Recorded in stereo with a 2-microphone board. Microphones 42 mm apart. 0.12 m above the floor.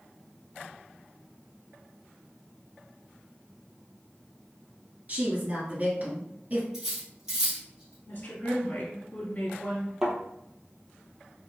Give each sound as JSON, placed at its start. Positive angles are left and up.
{"t": 5.1, "sound": "a woman speaking", "side_deg": -40, "distance_m": 1.8}
{"t": 6.7, "sound": "cutlery clinking", "side_deg": -10, "distance_m": 1.8}
{"t": 8.1, "sound": "a woman speaking", "side_deg": 40, "distance_m": 1.5}
{"t": 10.0, "sound": "a thud", "side_deg": -10, "distance_m": 1.3}